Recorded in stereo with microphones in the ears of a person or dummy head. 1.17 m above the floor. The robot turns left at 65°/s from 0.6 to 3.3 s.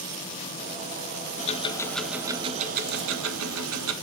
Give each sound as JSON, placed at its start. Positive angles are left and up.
{"t": 1.4, "sound": "ticking", "azimuth_deg": 40, "distance_m": 1.1}